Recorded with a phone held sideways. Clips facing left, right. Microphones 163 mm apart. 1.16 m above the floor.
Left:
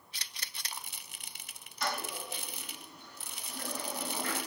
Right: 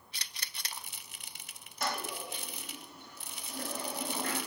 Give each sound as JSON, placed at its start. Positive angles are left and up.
{"t": 1.8, "sound": "a toilet flushing", "side_deg": -45, "distance_m": 0.9}